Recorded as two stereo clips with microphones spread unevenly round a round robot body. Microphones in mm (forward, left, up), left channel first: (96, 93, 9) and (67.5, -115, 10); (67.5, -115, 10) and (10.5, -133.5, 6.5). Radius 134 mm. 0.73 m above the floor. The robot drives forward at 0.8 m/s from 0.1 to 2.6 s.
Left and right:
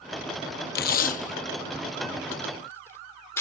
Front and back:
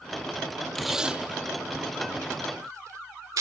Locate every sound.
0.8 s tape being pulled: 105° left; by 3.4 s 160° left